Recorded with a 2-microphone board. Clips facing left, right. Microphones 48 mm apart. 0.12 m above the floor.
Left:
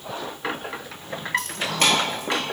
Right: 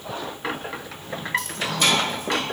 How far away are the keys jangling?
About 1.8 m.